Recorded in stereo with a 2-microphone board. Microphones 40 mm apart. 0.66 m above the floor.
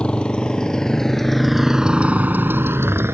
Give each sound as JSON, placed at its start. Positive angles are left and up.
{"t": 0.0, "sound": "a motorcycle", "side_deg": 25}